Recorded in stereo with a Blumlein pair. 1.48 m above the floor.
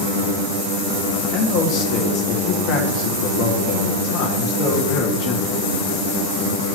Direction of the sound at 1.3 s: 40° left.